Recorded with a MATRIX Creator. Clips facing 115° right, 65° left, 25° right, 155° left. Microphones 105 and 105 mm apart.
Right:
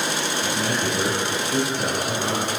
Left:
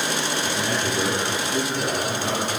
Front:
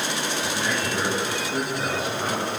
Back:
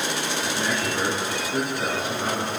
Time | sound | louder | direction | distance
0.4 | a man speaking | right 1 dB, back 1 dB | 115° right | 8 m